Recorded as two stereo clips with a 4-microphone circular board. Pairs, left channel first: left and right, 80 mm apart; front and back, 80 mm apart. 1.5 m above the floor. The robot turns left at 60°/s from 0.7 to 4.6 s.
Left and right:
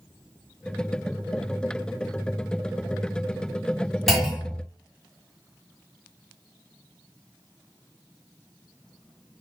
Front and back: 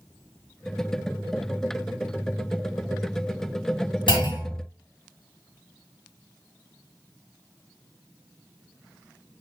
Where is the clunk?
5° right, 2 m; by 4.7 s 35° right, 2 m.